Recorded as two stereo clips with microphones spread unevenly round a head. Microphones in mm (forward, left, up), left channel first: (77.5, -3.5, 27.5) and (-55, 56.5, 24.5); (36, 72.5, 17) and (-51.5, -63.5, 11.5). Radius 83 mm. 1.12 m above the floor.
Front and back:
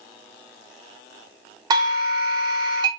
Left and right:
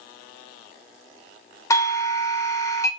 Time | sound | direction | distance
1.7 | a doorbell | 120° left | 1.0 m